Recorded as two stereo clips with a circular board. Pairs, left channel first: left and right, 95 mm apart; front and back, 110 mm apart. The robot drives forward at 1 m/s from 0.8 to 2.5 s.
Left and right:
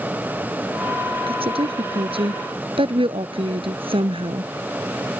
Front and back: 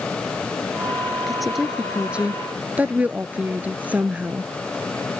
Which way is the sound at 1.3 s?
90° right.